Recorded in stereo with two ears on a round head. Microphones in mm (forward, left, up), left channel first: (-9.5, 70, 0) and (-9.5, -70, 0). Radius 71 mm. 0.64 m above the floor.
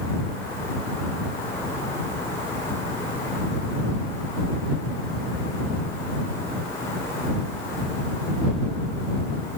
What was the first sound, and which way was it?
Only background noise.